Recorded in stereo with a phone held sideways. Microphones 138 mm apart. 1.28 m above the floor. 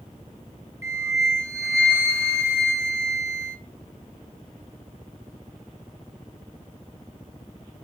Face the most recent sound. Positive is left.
turn(degrees=-20)  # may be behind; listen again after turning